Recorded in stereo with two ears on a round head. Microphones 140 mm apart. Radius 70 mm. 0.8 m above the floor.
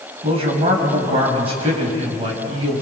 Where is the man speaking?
35° right (ahead or behind), 6 m.